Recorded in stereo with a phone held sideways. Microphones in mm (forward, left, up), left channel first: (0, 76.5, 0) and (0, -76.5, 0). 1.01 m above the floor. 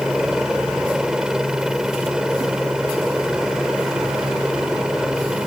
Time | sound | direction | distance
0.0 | a helicopter | 5° right (ahead or behind) | ?